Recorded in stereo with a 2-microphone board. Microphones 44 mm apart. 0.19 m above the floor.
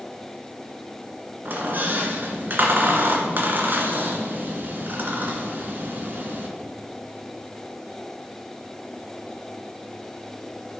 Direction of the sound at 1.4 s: 45° right (ahead or behind).